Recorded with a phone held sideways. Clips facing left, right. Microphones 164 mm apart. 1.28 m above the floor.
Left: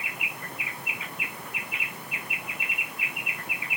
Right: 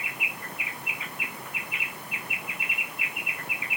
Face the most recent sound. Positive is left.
No sound to turn to.